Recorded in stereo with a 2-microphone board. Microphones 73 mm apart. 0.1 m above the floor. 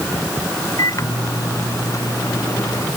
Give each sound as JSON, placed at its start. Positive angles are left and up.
{"t": 0.8, "sound": "a microwave", "side_deg": 50}